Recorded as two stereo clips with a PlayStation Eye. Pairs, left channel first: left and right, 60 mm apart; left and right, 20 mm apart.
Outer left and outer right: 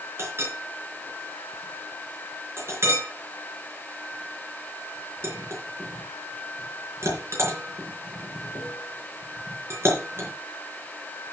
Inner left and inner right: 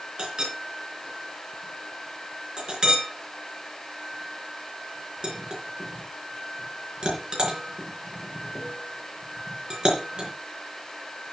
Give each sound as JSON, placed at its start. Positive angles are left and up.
{"t": 0.2, "sound": "a clink", "side_deg": -45, "distance_m": 4.0}